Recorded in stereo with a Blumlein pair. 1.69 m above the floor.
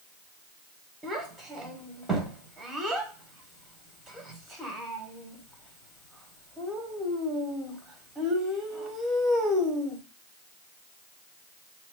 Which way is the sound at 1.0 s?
5° right.